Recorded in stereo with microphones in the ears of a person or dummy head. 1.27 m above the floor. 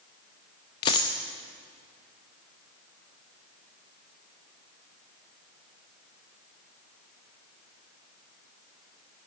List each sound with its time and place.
0.8 s a dropped coin: 25° left (ahead or behind), 0.7 m